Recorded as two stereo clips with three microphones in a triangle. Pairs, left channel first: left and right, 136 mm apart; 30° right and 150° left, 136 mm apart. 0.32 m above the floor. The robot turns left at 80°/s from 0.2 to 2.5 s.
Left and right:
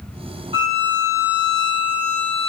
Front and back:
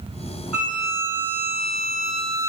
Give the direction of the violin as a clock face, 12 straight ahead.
3 o'clock.